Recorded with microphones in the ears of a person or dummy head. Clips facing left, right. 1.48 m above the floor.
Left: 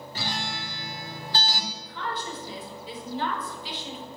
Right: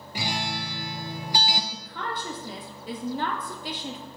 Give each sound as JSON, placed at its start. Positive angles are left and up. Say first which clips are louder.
{"t": 0.1, "sound": "a guitar", "louder": "right 4 dB", "side_deg": -10, "distance_m": 0.9}
{"t": 1.7, "sound": "a woman speaking", "louder": "even", "side_deg": -40, "distance_m": 1.8}